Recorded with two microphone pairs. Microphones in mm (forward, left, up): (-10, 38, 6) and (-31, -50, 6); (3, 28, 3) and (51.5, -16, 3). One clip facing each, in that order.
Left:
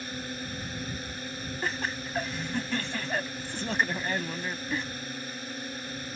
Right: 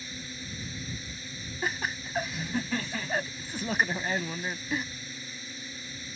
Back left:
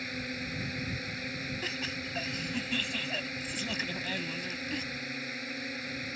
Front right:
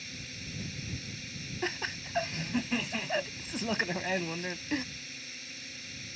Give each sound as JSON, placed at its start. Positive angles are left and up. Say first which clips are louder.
{"t": 0.0, "sound": "a drone", "louder": "left 6 dB, back left 8 dB", "azimuth_deg": 100}
{"t": 1.6, "sound": "laughter", "louder": "right 1 dB, front right 1 dB", "azimuth_deg": -20}